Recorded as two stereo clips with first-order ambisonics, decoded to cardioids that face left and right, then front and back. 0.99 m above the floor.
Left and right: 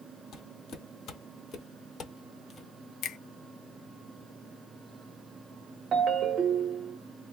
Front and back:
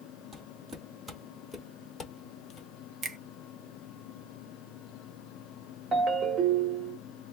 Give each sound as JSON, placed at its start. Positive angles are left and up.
{"t": 0.3, "sound": "footsteps", "azimuth_deg": 125, "distance_m": 1.4}
{"t": 3.0, "sound": "a finger snap", "azimuth_deg": 125, "distance_m": 0.5}
{"t": 5.9, "sound": "a ringtone", "azimuth_deg": -135, "distance_m": 0.7}